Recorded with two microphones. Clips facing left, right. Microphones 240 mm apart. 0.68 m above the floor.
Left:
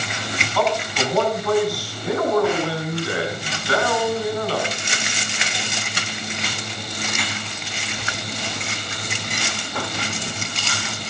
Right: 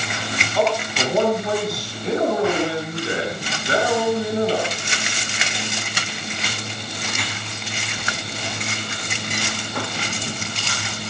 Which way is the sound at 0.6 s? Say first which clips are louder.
Right 1 dB; 20° right (ahead or behind).